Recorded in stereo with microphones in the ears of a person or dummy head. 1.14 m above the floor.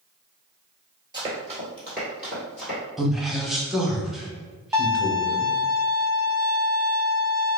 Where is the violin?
15° right (ahead or behind), 0.6 m.